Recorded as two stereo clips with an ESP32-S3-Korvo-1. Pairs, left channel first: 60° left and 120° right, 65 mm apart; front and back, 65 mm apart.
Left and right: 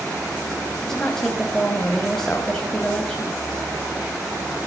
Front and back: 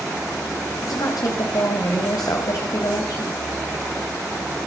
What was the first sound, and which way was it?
A woman speaking, 20° right.